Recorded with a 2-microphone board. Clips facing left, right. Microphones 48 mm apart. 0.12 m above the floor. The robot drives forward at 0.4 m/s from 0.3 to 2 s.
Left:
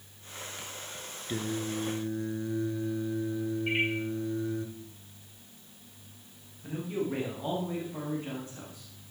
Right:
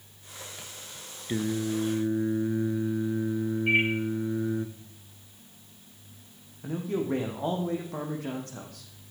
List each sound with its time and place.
1.3 s singing: 20° right (ahead or behind), 1.2 m; by 4.7 s 25° right (ahead or behind), 1.1 m
3.7 s a microwave: 5° right (ahead or behind), 9.5 m
6.6 s a man speaking: 70° right (ahead or behind), 5 m